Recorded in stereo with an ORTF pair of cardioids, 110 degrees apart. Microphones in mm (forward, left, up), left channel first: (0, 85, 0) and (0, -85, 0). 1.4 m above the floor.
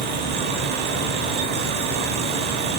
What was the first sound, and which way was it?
A fan, 65° right.